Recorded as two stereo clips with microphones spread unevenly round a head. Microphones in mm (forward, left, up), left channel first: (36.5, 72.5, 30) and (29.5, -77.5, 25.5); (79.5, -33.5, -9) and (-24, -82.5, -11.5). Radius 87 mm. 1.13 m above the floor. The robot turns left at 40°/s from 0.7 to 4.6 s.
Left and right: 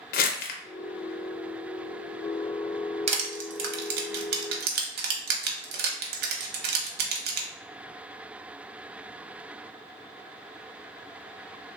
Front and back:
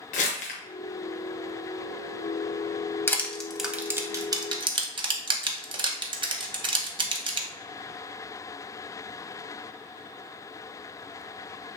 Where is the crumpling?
60° left, 0.5 m.